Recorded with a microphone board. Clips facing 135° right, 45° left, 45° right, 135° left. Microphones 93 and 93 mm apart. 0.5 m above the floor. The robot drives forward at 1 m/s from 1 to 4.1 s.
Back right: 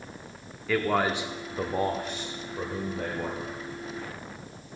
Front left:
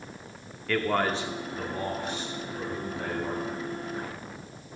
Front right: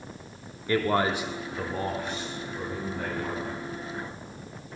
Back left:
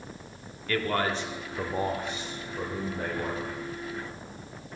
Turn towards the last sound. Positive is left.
turn(degrees=-175)